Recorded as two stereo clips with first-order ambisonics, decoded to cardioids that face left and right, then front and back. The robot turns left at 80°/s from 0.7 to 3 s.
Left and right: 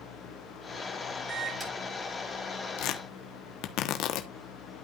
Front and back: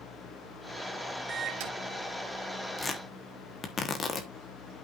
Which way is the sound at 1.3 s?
145° right.